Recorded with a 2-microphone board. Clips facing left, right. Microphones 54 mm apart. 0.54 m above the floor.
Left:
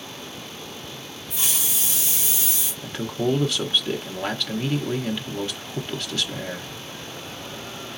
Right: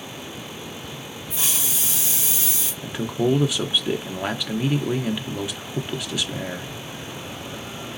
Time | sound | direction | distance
1.3 | a hiss | 25° right (ahead or behind) | 1.7 m
2.8 | a man speaking | 10° right (ahead or behind) | 0.6 m